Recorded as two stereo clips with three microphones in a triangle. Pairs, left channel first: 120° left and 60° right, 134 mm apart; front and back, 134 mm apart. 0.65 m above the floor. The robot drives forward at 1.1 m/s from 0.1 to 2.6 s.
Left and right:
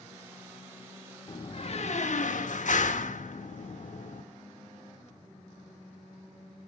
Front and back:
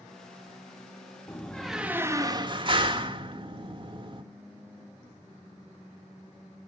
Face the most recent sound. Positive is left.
turn(degrees=130)